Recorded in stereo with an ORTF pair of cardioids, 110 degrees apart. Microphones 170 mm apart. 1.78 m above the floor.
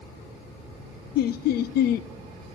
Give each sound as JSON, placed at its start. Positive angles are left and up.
{"t": 1.1, "sound": "laughter", "azimuth_deg": 65, "distance_m": 0.5}